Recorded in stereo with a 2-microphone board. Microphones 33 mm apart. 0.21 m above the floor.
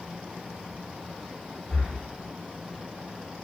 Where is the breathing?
Centre (ahead or behind), 1.6 m.